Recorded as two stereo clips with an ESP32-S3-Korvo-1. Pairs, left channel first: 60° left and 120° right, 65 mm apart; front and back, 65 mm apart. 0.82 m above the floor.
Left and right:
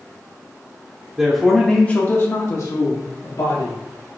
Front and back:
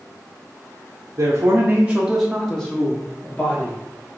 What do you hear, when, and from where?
1.2 s a man speaking: 165° left, 0.8 m; by 3.8 s 60° left, 1.6 m